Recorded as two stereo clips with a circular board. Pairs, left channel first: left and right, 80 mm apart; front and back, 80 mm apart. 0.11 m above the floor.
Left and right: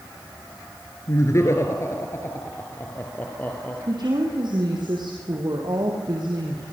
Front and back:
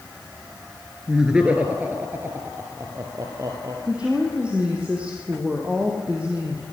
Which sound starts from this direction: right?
A woman speaking, at 3.9 s.